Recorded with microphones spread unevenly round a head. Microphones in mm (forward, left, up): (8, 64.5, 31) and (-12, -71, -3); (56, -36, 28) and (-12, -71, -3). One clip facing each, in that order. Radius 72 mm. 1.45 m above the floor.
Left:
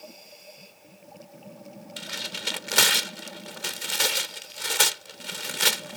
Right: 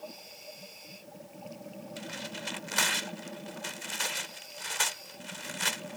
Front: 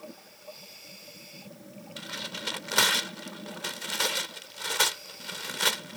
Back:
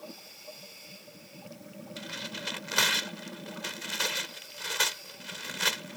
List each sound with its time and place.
2.0 s tearing paper: 90° left